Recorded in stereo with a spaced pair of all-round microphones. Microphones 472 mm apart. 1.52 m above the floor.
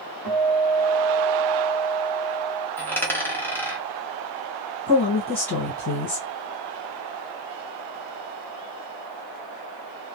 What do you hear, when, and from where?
0.2 s a guitar: centre (ahead or behind), 1.2 m
2.8 s a dropped coin: 5° left (ahead or behind), 0.9 m
4.9 s a woman speaking: 60° left (ahead or behind), 1.3 m